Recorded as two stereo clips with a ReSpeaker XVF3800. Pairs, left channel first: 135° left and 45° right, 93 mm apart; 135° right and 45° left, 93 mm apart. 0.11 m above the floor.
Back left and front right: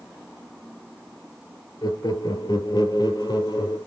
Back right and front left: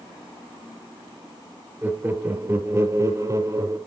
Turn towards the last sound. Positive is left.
turn(degrees=100)